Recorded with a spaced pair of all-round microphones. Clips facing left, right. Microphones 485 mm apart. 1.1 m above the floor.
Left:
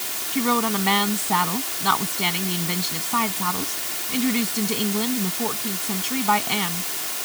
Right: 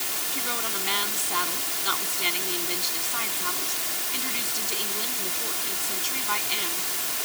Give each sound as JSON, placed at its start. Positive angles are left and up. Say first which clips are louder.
{"t": 0.3, "sound": "a woman speaking", "louder": "left 15 dB", "side_deg": 85}